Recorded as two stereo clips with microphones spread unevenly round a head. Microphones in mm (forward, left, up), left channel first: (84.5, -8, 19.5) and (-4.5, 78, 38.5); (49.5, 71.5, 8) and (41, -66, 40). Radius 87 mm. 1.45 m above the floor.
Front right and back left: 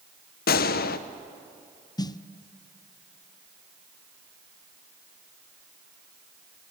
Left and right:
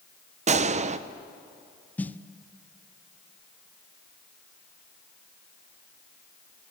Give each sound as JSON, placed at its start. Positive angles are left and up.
{"t": 0.5, "sound": "a gunshot", "azimuth_deg": -50, "distance_m": 0.8}
{"t": 2.0, "sound": "a snare drum", "azimuth_deg": 15, "distance_m": 0.6}